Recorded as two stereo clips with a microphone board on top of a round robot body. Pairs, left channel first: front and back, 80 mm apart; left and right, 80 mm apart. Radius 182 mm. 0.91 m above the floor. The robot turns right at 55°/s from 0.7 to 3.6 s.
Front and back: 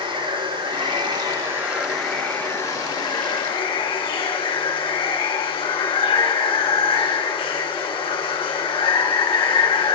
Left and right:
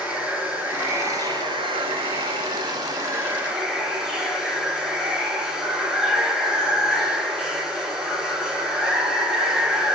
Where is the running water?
165° right, 4 m; by 10.0 s 5° right, 4 m.